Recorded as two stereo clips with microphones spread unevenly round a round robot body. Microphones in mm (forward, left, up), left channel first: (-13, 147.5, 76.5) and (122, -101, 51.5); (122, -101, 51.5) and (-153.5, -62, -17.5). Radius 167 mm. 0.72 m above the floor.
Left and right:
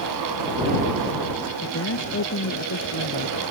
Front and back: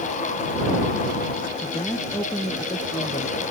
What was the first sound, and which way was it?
A woman speaking, 75° left.